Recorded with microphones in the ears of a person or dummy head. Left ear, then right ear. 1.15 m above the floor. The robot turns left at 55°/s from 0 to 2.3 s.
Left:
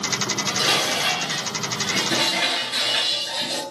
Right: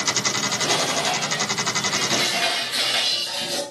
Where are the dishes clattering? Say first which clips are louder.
Left 1 dB; 105° left, 9 m; by 3.6 s 10° right, 9 m.